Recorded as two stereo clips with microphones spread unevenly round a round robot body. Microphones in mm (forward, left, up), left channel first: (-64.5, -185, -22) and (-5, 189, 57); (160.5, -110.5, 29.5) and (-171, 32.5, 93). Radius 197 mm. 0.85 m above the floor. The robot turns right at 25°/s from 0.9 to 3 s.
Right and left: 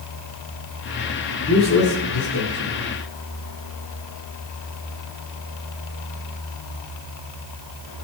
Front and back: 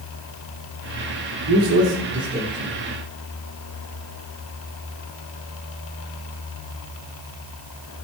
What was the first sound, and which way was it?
A man speaking, 160° right.